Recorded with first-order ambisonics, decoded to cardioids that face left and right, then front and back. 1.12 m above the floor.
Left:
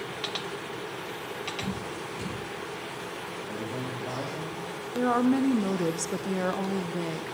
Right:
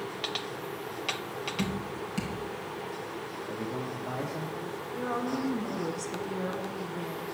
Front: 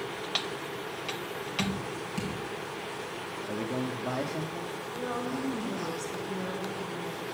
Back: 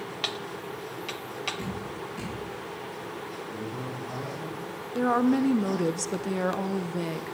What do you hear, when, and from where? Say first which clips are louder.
1.6 s dripping: even, front 2 dB; 55° right, 5 m
3.4 s a man speaking: right 1 dB, front 2 dB; straight ahead, 1.8 m
5.0 s a woman speaking: left 8 dB, back 11 dB; 145° left, 0.6 m